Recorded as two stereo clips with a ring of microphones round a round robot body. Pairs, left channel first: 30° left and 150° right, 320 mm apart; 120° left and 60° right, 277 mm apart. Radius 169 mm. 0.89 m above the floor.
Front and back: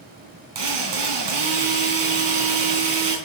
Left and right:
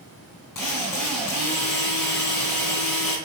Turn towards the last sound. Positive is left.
turn(degrees=-155)